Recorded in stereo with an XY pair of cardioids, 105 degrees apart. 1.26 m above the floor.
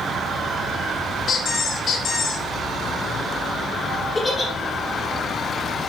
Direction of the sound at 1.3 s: 55° left.